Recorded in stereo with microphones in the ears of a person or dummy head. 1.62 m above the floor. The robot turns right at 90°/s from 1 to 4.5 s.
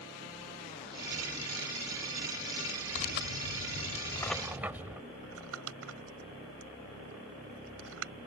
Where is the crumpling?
80° right.